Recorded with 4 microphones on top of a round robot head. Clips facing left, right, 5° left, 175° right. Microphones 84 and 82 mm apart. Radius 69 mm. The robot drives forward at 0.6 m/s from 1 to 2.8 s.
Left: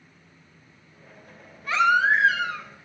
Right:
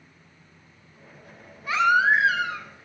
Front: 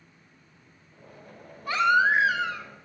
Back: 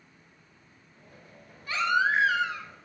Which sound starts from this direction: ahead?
A baby crying, at 1.7 s.